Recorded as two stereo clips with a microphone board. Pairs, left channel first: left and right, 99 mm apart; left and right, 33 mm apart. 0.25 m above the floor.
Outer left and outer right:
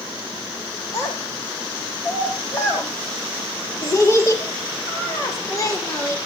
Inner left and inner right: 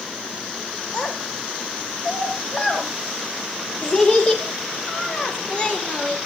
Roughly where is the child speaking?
Left.